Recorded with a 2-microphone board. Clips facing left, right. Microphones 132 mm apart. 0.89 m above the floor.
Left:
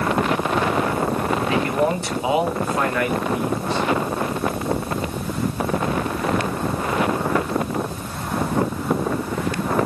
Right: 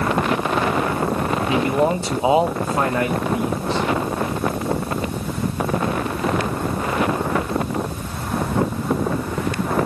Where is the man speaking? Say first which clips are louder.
Right 3 dB; 15° right (ahead or behind), 1.1 m; by 3.9 s 20° right (ahead or behind), 1.5 m.